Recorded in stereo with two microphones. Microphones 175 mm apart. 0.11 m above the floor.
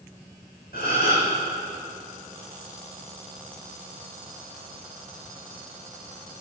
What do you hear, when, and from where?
0.7 s a gasp: 60° left (ahead or behind), 3 m